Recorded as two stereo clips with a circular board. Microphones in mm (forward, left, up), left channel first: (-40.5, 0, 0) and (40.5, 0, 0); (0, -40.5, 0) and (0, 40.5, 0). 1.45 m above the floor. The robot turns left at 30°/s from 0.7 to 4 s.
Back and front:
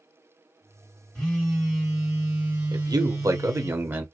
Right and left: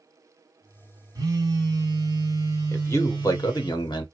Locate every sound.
1.1 s a phone buzzing: 100° left, 1.8 m; by 3.7 s 25° left, 1.8 m
2.7 s a man speaking: 30° right, 1.0 m; by 4.0 s 70° right, 1.0 m